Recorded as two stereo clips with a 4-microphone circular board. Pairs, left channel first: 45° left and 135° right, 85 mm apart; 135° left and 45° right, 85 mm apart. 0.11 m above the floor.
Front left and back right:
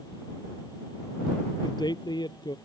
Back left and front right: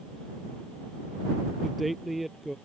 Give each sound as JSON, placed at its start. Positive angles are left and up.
{"t": 1.6, "sound": "a man speaking", "azimuth_deg": 45}